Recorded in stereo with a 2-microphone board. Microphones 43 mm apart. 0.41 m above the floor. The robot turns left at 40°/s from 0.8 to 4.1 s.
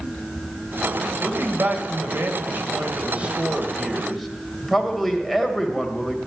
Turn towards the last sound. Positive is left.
turn(degrees=180)